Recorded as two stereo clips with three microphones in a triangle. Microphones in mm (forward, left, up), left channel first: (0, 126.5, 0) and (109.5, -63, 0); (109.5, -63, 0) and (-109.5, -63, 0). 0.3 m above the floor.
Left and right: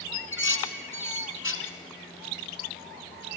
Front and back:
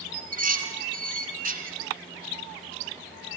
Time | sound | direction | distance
0.1 | dishes clattering | 135° left | 2.5 m